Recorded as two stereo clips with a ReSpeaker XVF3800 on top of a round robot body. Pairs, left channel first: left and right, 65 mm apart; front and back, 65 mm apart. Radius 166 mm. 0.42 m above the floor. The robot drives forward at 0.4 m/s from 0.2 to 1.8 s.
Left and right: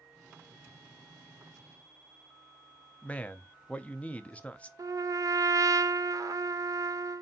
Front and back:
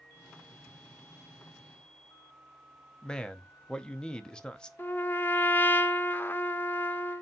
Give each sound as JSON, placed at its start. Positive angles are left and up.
{"t": 3.0, "sound": "a man speaking", "azimuth_deg": 55, "distance_m": 0.7}
{"t": 4.8, "sound": "a trumpet", "azimuth_deg": -60, "distance_m": 0.6}